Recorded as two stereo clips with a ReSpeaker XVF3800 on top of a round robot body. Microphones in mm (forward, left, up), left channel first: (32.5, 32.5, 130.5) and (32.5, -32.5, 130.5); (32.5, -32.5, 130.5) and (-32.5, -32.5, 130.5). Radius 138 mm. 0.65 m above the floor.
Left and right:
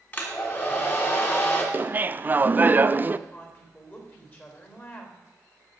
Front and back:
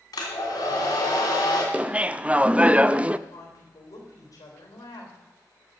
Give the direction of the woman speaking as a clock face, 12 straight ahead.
11 o'clock.